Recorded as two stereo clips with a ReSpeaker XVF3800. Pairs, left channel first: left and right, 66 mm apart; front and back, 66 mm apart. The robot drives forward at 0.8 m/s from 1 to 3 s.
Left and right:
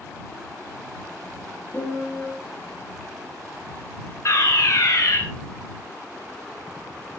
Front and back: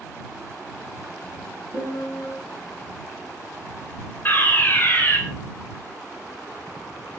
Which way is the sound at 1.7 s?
25° left.